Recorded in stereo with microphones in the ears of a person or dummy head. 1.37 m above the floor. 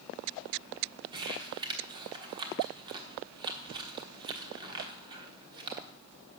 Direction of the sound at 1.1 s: 25° right (ahead or behind).